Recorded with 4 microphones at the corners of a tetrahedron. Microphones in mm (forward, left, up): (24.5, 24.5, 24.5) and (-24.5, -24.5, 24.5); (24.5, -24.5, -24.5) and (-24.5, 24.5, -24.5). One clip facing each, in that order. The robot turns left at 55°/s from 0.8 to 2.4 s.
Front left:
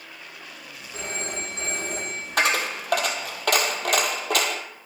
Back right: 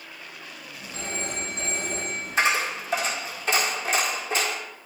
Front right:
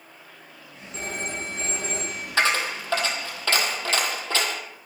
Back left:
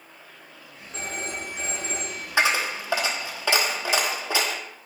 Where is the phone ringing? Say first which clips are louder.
Even, front right 1 dB; 115° left, 3 m; by 2.3 s 45° left, 3 m.